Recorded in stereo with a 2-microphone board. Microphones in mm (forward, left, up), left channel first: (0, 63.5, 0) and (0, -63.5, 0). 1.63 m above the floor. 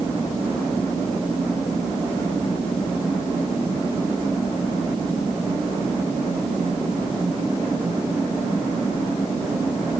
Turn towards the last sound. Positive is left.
No sound to turn to.